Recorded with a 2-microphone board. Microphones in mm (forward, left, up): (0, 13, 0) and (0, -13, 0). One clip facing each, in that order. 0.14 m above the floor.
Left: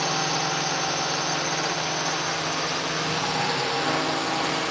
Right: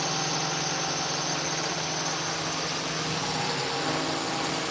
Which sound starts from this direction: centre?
A drone, at 0.0 s.